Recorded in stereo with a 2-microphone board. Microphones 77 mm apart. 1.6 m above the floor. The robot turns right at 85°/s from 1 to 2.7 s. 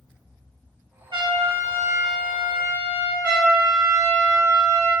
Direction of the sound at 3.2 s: 25° right (ahead or behind).